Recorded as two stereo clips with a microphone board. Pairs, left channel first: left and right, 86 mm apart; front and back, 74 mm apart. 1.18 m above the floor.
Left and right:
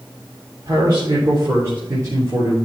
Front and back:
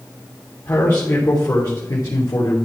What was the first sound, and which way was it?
A man speaking, 50° right.